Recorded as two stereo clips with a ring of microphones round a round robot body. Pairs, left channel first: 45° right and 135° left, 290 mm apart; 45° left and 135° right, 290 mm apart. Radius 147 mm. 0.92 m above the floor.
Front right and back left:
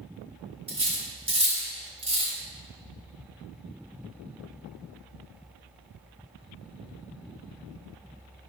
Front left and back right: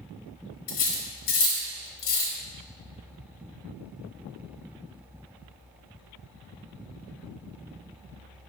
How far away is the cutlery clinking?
About 1.2 m.